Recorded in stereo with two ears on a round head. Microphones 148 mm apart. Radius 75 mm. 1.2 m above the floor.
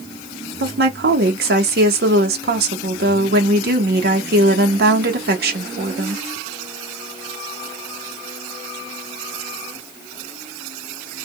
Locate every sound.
0.6 s a woman speaking: 65° right (ahead or behind), 1.0 m